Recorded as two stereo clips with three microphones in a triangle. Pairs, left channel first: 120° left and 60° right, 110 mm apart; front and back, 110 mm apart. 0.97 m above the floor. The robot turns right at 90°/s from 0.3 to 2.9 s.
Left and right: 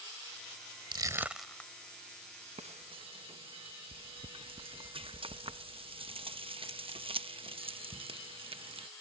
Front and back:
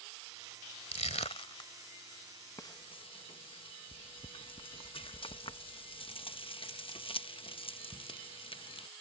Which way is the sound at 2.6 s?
60° right.